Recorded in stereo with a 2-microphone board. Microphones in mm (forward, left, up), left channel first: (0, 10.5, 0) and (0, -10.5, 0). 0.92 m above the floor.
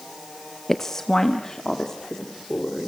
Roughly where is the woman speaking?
Centre.